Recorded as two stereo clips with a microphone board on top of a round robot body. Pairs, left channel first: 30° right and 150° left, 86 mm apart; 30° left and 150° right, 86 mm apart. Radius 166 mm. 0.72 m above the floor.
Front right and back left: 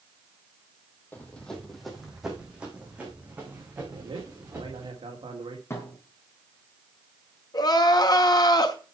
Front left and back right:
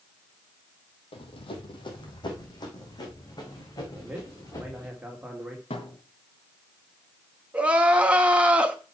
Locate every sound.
1.1 s running footsteps: 40° left, 1.9 m; by 4.9 s 80° left, 6 m
3.9 s a man speaking: 130° left, 2.5 m
5.7 s a thud: 30° left, 2.5 m
7.5 s crying: 75° right, 1.1 m